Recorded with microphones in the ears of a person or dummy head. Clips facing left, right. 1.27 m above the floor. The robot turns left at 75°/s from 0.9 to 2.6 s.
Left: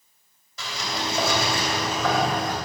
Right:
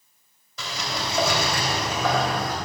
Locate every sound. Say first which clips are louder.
0.6 s a sliding door: even; 90° right, 2.5 m; by 2.5 s 145° left, 2.5 m